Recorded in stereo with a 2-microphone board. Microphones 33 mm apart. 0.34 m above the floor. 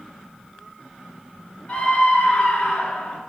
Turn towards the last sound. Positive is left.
turn(degrees=40)  # may be behind; listen again after turning